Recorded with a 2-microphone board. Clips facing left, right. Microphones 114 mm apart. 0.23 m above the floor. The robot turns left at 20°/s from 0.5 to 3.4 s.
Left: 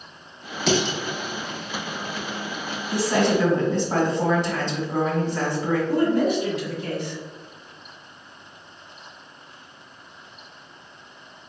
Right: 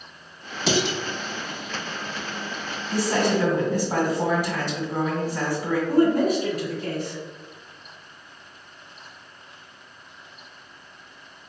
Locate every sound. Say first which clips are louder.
0.7 s dishes clattering: left 1 dB; centre (ahead or behind), 1.2 m; by 1.0 s 5° right (ahead or behind), 1.2 m
2.9 s a woman speaking: left 2 dB; 15° right (ahead or behind), 1.6 m; by 5.8 s 10° right (ahead or behind), 1.6 m
5.9 s a woman speaking: right 3 dB; 45° right (ahead or behind), 1.3 m